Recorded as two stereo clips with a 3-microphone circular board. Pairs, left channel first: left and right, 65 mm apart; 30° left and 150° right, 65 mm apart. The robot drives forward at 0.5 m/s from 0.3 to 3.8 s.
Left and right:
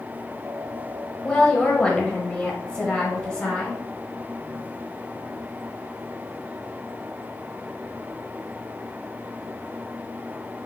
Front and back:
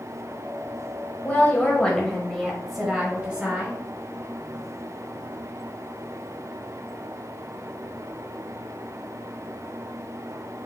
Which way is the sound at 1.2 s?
35° left.